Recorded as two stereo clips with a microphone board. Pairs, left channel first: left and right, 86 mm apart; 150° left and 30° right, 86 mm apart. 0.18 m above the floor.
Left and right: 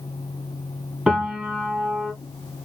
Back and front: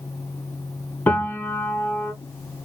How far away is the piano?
About 1.1 m.